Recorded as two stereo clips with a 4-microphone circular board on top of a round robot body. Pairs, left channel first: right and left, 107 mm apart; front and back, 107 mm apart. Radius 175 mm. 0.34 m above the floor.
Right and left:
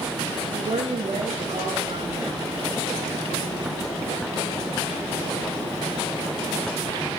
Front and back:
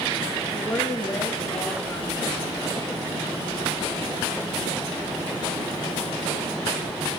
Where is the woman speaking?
85° left, 8.5 m; by 2.5 s 75° left, 8.5 m.